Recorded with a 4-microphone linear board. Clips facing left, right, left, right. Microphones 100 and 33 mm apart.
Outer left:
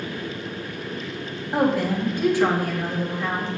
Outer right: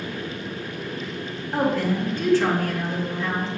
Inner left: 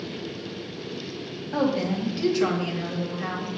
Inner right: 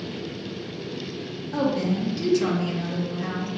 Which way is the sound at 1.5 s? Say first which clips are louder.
Outer left 1 dB, even; 15° left (ahead or behind).